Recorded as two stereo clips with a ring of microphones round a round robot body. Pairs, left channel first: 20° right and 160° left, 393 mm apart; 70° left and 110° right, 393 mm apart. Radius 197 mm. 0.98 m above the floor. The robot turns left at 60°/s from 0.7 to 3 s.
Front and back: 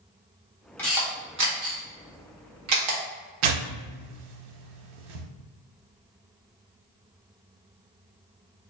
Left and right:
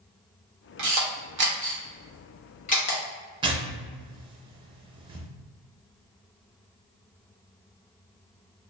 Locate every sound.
0.8 s a camera shutter: 105° right, 1.3 m; by 3.0 s 120° left, 1.3 m
3.4 s tearing paper: 170° left, 0.6 m